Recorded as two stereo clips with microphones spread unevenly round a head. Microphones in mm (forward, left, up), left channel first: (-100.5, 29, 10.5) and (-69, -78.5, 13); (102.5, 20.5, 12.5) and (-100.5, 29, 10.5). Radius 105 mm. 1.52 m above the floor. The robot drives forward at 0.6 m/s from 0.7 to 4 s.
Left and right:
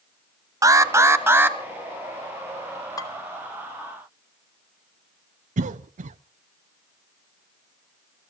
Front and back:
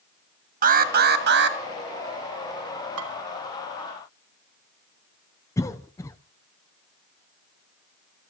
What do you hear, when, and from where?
0.6 s an alarm: 135° right, 1.4 m; by 1.6 s 150° right, 1.8 m
3.0 s dishes clattering: 165° left, 3 m
5.6 s a cough: 80° right, 0.5 m